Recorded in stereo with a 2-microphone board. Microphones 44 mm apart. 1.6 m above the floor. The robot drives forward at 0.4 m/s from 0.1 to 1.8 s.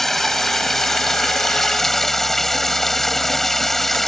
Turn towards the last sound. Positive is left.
turn(degrees=5)  # may be behind; listen again after turning